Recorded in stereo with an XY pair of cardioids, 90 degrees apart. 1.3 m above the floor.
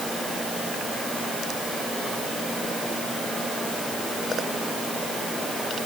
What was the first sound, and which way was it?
Only background noise.